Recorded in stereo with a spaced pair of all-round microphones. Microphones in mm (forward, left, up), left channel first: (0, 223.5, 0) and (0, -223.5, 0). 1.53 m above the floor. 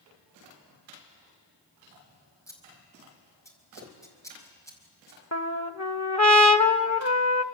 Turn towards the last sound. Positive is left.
turn(degrees=35)  # may be behind; listen again after turning